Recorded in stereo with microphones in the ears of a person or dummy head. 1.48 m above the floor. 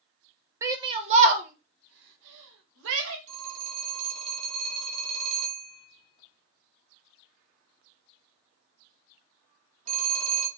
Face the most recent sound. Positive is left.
turn(degrees=-35)  # may be behind; listen again after turning